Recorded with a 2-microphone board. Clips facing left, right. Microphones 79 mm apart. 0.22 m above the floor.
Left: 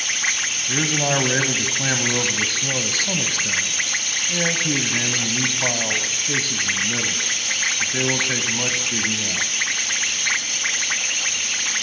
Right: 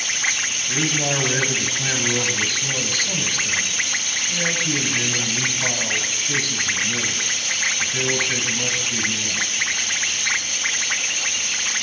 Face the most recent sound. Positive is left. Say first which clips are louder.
# left 2 dB
turn(degrees=25)  # may be behind; listen again after turning